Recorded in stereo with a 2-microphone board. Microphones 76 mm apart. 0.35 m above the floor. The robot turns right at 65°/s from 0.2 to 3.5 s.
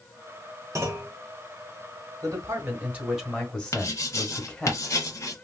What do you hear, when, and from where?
0.8 s a clunk: 40° right (ahead or behind), 0.7 m; by 1.1 s 25° right (ahead or behind), 0.7 m
2.2 s a man speaking: 70° right, 1.1 m; by 4.7 s 15° left, 1.1 m
3.7 s writing: 40° left (ahead or behind), 0.9 m